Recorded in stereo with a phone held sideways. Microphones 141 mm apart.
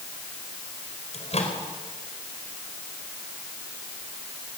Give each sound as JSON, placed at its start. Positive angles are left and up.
{"t": 1.1, "sound": "a microwave", "side_deg": 50, "distance_m": 4.5}